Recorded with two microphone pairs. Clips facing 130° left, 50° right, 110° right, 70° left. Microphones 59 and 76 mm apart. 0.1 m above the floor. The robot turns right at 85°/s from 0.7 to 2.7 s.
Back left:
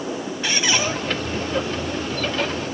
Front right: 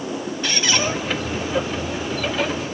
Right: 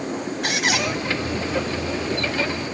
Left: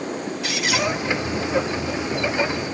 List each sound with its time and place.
0.4 s a squeak: 145° right, 2.5 m; by 0.9 s 130° right, 2.5 m